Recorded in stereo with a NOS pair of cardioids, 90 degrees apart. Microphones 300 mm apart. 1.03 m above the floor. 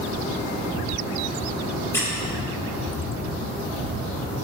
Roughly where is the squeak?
Ahead.